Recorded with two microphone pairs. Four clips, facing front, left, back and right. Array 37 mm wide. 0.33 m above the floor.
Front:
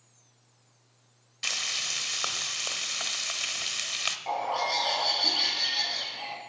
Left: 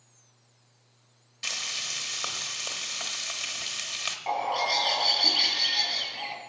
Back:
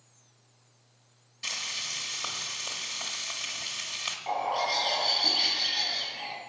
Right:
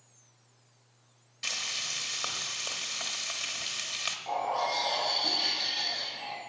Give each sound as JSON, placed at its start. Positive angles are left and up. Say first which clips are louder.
{"t": 1.4, "sound": "frying", "louder": "left 1 dB, front 3 dB", "azimuth_deg": 10, "distance_m": 1.1}
{"t": 4.3, "sound": "a bird", "louder": "left 4 dB, back 2 dB", "azimuth_deg": 80, "distance_m": 5.0}